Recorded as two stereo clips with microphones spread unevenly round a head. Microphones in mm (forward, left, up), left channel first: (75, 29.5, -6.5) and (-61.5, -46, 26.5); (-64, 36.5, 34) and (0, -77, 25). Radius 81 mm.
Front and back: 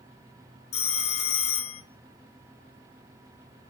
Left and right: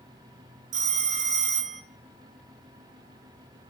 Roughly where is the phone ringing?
Ahead.